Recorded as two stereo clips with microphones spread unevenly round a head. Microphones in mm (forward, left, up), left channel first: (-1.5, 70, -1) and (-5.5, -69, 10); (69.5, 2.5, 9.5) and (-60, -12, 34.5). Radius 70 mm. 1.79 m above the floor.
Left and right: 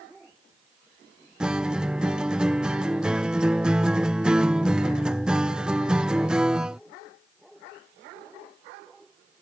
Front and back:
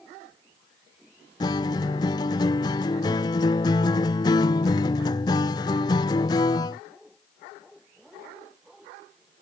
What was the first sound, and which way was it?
A guitar, 30° right.